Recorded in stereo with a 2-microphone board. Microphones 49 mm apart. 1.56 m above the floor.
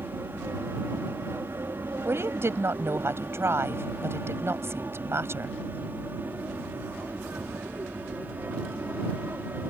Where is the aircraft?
60° right (ahead or behind); by 9.7 s 40° right (ahead or behind).